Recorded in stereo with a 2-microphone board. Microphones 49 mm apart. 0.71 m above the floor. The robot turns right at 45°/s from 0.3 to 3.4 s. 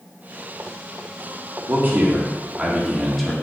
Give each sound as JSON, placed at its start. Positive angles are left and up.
{"t": 1.7, "sound": "a man speaking", "azimuth_deg": -65, "distance_m": 1.5}